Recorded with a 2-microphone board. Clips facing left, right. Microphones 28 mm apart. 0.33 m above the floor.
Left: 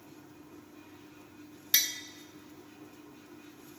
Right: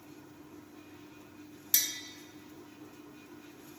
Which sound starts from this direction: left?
Tapping, at 1.7 s.